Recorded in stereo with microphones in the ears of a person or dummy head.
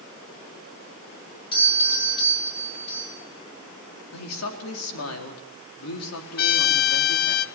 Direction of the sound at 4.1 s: 85° left.